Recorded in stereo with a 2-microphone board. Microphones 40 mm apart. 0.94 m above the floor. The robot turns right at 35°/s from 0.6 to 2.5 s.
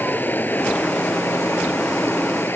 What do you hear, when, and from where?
0.0 s running water: 50° left; by 2.6 s 120° left